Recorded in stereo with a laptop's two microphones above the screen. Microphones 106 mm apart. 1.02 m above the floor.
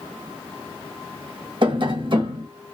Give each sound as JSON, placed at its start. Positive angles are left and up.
{"t": 1.6, "sound": "tapping", "side_deg": -50, "distance_m": 1.0}